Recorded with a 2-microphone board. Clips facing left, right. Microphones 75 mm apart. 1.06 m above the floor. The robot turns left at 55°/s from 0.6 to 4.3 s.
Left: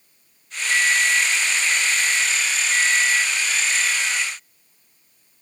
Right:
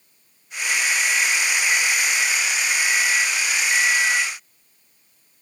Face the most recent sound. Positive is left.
turn(degrees=180)